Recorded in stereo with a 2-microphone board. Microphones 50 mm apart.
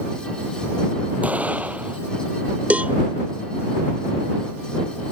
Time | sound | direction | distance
1.2 | an explosion | 30° right (ahead or behind) | ?
2.7 | a cowbell | 30° right (ahead or behind) | ?